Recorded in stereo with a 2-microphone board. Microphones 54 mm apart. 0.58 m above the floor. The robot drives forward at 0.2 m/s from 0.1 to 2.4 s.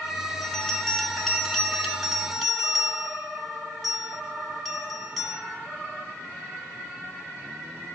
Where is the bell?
5° left (ahead or behind), 1.1 m; by 5.4 s centre (ahead or behind), 1.5 m.